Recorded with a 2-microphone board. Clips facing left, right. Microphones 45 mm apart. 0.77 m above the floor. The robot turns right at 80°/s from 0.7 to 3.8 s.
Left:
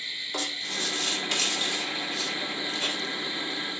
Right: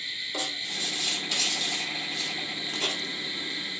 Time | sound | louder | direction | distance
0.3 | writing | left 2 dB | 65° left (ahead or behind) | 1.7 m